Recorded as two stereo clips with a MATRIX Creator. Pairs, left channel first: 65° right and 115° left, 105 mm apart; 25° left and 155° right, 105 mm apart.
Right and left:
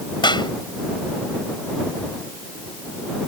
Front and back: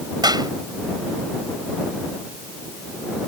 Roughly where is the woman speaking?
I don't hear a woman speaking.